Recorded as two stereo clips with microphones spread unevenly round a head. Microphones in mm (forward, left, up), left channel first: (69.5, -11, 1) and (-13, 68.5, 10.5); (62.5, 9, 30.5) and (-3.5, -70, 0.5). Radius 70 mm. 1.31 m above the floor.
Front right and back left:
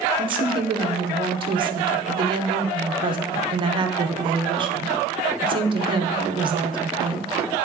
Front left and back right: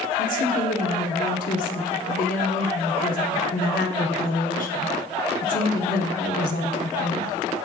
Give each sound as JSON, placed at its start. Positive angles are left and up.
{"t": 0.2, "sound": "a woman speaking", "azimuth_deg": 85, "distance_m": 0.8}